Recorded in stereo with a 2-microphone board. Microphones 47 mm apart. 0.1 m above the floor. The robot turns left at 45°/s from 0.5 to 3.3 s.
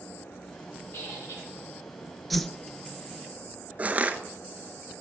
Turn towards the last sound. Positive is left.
turn(degrees=-30)  # may be behind; listen again after turning